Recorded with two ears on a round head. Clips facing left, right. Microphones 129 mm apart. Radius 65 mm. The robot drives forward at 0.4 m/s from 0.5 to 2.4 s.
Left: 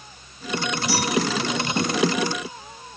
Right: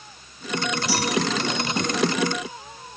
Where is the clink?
85° right, 4.5 m.